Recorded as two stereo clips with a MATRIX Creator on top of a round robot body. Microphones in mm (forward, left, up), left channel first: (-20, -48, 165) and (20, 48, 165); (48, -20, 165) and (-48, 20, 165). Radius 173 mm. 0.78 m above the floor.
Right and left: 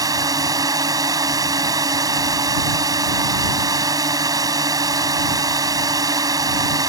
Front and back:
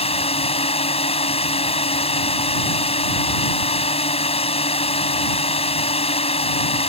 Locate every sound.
0.0 s a drone: 10° left